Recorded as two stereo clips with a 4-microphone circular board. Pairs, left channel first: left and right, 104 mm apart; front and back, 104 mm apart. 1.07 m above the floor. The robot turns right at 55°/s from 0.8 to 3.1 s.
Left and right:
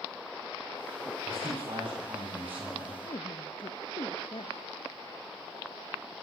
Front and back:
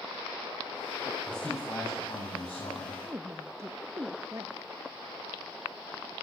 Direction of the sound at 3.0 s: 115° left.